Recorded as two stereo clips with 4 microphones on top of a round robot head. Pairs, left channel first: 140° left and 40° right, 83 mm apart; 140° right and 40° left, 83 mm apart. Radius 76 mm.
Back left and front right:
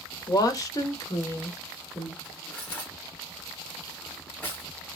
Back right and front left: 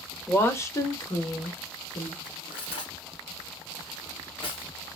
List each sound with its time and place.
0.3 s a woman speaking: 160° left, 1.2 m; by 2.1 s 160° right, 1.7 m
2.2 s cutlery clinking: 150° right, 2.5 m